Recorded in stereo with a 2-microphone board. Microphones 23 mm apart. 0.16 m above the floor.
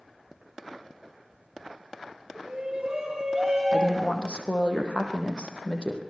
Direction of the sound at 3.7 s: 50° left (ahead or behind).